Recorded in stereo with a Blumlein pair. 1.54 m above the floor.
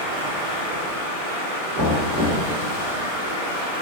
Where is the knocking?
50° right, 1.5 m.